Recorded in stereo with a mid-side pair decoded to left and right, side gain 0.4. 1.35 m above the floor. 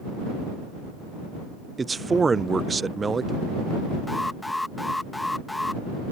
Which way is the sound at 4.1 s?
15° left.